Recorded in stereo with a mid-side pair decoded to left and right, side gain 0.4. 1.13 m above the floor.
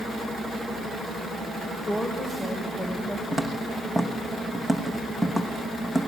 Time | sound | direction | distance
1.9 | a woman speaking | 20° left | 5 m
3.3 | footsteps | 15° left | 4.5 m